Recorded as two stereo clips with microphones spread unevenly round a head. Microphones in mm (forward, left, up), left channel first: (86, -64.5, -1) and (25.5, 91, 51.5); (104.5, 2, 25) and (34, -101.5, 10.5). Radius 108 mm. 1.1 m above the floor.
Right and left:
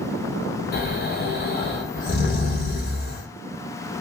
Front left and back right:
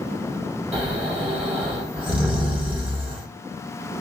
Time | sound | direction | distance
0.7 | snoring | 80° right | 1.7 m